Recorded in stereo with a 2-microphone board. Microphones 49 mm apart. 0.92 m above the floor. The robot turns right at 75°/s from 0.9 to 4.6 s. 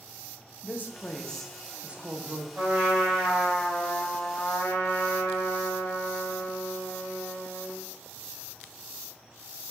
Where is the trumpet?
45° right, 1.3 m; by 7.8 s 110° left, 1.3 m.